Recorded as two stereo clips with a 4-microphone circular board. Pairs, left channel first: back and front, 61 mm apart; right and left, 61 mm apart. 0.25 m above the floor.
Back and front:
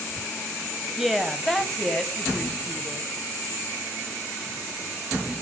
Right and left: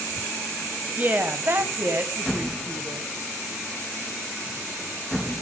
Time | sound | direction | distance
1.0 | a woman speaking | 80° left | 1.5 m